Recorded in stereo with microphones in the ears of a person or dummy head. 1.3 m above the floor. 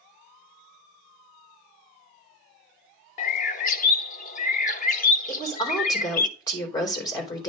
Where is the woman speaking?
30° left (ahead or behind), 3.5 m.